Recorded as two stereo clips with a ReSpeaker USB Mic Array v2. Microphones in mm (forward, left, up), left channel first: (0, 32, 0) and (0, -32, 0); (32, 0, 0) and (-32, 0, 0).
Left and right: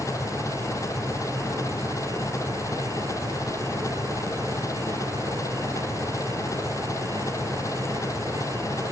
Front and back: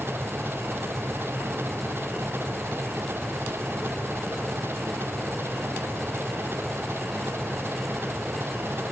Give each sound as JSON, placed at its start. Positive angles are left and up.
{"t": 0.0, "sound": "an engine running", "azimuth_deg": 125}